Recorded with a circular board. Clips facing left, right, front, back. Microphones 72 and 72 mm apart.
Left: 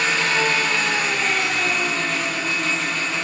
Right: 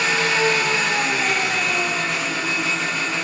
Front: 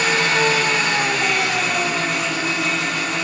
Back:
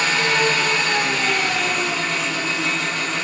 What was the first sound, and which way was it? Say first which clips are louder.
An engine running: right 1 dB, front 1 dB; 10° right.